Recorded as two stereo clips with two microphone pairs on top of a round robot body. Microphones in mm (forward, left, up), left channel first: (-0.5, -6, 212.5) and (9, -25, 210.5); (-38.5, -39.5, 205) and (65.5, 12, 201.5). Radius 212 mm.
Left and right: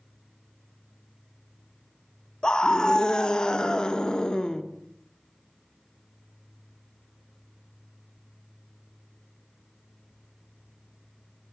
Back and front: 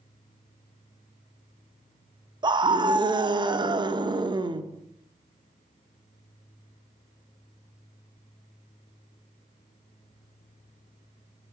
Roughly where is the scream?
Left.